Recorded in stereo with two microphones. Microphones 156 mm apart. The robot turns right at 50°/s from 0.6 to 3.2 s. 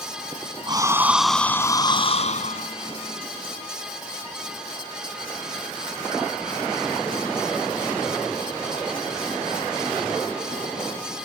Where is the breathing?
30° right; by 2.7 s 70° left.